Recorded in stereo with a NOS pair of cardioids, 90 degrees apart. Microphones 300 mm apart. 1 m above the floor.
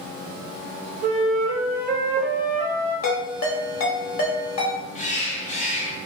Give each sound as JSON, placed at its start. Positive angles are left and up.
{"t": 1.0, "sound": "a flute", "azimuth_deg": -30, "distance_m": 0.5}
{"t": 3.0, "sound": "a ringtone", "azimuth_deg": 55, "distance_m": 1.2}
{"t": 5.0, "sound": "a bird", "azimuth_deg": 25, "distance_m": 0.6}